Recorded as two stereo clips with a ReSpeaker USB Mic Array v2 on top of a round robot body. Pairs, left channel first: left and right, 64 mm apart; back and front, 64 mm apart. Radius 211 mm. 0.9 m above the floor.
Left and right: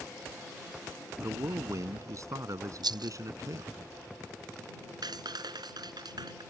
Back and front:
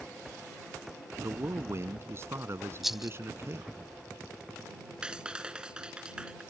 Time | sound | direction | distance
1.2 | a man speaking | 50° right | ?
2.8 | a rattle | 85° right | ?
5.0 | a clap | 75° right | ?